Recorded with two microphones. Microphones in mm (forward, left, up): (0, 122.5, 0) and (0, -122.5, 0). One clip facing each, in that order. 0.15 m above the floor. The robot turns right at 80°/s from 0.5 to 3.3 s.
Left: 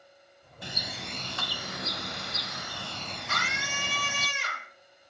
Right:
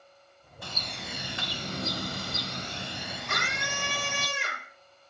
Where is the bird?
150° left, 1.0 m; by 4.3 s 5° left, 1.0 m.